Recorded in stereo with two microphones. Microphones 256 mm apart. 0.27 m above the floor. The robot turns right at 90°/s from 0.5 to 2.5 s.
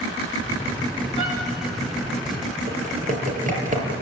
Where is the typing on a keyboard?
30° right (ahead or behind), 6 m.